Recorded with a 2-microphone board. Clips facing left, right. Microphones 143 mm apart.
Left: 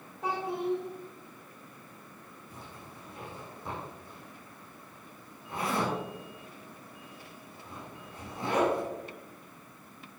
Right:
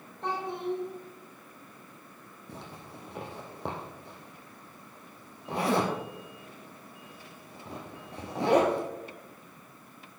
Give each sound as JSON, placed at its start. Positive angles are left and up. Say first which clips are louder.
{"t": 0.2, "sound": "a child speaking", "louder": "left 1 dB", "side_deg": 5, "distance_m": 1.6}
{"t": 2.5, "sound": "a zipper", "louder": "right 5 dB", "side_deg": -75, "distance_m": 2.0}